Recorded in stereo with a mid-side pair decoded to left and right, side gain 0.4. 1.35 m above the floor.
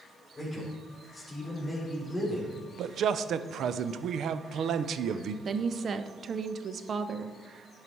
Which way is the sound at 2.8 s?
65° right.